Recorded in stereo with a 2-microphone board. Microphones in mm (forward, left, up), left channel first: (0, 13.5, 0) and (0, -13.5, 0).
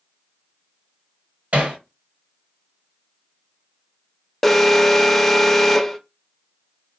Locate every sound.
1.5 s hammering: 60° right (ahead or behind), 1.7 m
4.4 s an alarm: 5° left (ahead or behind), 0.5 m